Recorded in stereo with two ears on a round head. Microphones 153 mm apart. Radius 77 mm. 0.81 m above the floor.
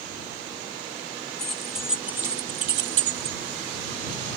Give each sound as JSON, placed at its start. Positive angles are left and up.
{"t": 1.4, "sound": "keys jangling", "side_deg": 5}